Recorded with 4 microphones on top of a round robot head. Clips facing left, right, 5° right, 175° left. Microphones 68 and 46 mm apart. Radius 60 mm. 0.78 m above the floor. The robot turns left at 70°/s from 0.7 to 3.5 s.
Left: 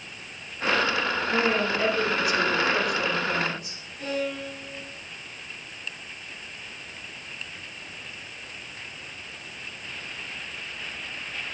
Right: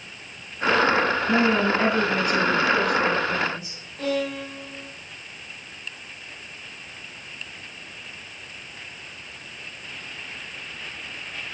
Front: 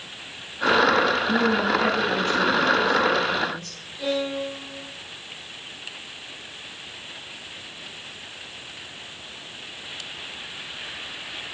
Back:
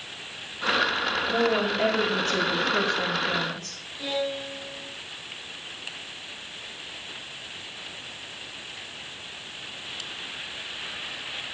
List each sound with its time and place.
1.3 s a woman speaking: 70° right, 7.5 m; by 3.8 s 135° left, 7.5 m
4.0 s a violin: 95° right, 6 m